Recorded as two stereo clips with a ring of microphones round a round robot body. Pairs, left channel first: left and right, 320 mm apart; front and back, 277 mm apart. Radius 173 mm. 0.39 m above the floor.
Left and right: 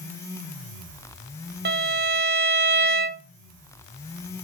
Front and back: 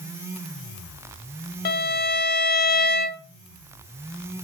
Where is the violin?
45° right, 0.9 m.